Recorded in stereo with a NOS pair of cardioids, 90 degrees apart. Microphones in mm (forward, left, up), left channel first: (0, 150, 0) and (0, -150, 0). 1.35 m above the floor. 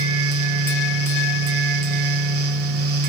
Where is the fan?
55° right, 0.8 m.